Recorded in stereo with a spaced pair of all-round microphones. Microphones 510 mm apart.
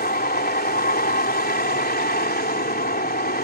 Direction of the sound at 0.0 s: 20° left (ahead or behind).